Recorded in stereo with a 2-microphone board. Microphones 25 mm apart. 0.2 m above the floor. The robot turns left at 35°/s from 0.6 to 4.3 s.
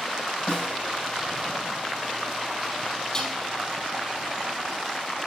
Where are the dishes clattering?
25° left (ahead or behind), 4 m; by 3.4 s 15° left (ahead or behind), 4 m.